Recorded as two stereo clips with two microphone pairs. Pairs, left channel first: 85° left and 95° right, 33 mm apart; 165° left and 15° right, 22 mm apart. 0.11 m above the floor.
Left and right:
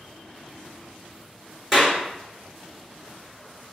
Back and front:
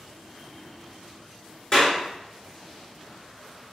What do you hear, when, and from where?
1.7 s a clap: straight behind, 1.6 m